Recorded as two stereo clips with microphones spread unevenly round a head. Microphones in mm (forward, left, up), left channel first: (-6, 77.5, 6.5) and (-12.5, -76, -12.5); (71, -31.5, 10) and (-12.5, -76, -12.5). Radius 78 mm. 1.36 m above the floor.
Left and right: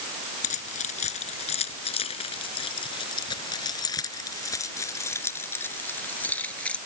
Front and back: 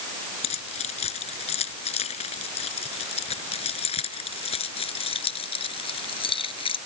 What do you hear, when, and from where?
0.4 s keys jangling: 45° left; by 6.8 s 5° left